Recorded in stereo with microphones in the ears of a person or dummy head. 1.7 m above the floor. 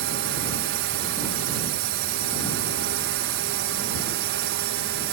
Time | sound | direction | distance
0.0 | a drone | 65° right (ahead or behind) | ?